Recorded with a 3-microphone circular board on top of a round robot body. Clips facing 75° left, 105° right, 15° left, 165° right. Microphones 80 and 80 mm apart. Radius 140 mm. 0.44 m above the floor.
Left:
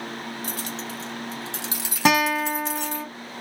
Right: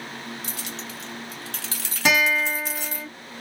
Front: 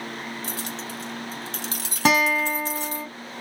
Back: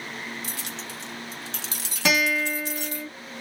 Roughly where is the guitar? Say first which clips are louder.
Left 1 dB, front 3 dB; ahead left.